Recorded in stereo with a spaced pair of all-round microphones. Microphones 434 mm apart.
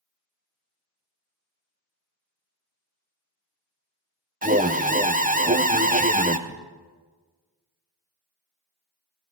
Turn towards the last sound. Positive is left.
turn(degrees=15)  # may be behind; listen again after turning